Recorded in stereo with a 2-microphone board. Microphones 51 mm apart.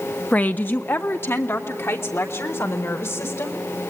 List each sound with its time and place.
0.3 s a woman speaking: 30° left (ahead or behind), 1.1 m; by 3.6 s 65° left (ahead or behind), 5 m